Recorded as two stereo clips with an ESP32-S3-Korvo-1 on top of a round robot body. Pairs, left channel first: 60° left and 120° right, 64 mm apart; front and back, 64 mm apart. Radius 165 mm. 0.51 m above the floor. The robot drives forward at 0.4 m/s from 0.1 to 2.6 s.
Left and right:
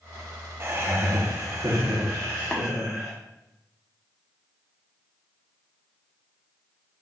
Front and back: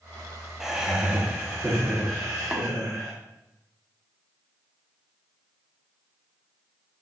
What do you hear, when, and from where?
0.6 s laughter: 100° right, 1.0 m; by 3.1 s 150° right, 1.3 m
2.5 s tapping: 125° left, 1.1 m; by 2.6 s 130° left, 1.1 m